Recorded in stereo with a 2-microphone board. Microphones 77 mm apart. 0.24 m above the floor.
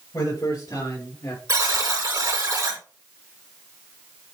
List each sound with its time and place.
0.1 s a man speaking: 50° left (ahead or behind), 5.5 m; by 1.4 s 55° left (ahead or behind), 4 m
1.5 s a buzzer: 45° right (ahead or behind), 3 m